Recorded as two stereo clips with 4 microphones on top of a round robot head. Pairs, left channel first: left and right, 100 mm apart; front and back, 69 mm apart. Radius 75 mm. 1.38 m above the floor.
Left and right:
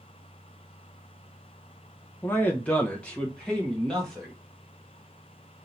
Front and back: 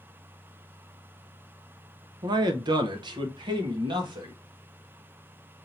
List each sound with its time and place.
2.2 s a man speaking: 165° left, 0.6 m; by 4.3 s 175° left, 1.7 m